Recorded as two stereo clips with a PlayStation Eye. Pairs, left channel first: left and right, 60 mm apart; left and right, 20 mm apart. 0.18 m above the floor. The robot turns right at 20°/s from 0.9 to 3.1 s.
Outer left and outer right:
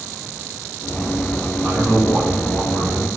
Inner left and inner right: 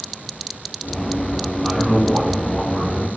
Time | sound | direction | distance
1.6 | a man speaking | 35° right (ahead or behind) | 1.5 m